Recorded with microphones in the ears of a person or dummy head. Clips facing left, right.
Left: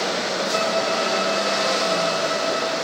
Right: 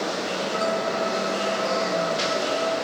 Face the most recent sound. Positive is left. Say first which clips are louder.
# left 2 dB
turn(degrees=75)  # may be behind; listen again after turning